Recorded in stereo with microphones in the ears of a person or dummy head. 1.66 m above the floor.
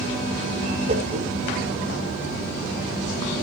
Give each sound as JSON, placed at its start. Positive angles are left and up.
{"t": 0.9, "sound": "a whoosh", "side_deg": -40, "distance_m": 4.5}